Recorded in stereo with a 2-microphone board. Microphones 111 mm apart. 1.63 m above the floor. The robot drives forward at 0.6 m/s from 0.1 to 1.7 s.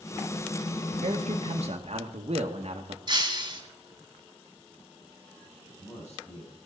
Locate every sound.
1.0 s a man speaking: 70° right (ahead or behind), 1.5 m; by 3.0 s 65° right (ahead or behind), 1.5 m
3.1 s breaking glass: 40° right (ahead or behind), 2 m
5.6 s a man speaking: 75° left (ahead or behind), 9.5 m